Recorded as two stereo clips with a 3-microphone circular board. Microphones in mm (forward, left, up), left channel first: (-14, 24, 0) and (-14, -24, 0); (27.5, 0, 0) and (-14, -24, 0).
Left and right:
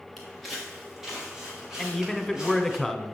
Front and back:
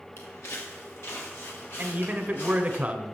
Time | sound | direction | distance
0.2 | footsteps | 5° left | 2.5 m
1.8 | a man speaking | 170° left | 1.0 m